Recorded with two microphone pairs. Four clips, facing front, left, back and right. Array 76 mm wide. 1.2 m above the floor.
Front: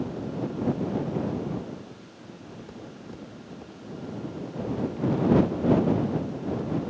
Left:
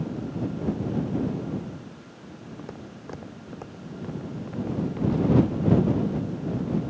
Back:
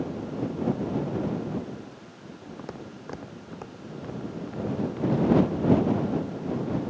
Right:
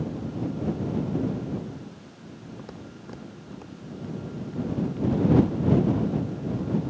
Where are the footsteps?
Straight behind; by 5.4 s 135° left.